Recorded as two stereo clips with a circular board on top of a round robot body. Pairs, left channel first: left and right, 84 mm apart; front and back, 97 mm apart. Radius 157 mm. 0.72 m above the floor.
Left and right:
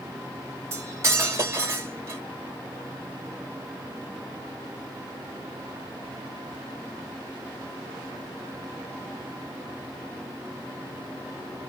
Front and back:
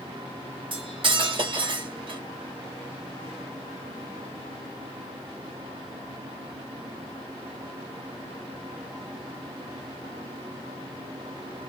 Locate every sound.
0.7 s cutlery clinking: 145° right, 1.0 m